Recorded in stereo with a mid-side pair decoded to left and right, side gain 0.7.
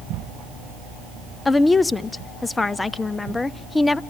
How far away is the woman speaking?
About 0.7 m.